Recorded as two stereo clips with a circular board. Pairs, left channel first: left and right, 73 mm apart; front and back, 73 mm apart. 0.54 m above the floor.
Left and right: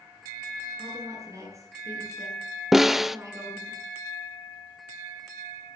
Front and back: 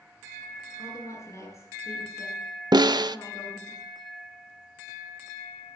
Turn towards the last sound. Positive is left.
turn(degrees=-175)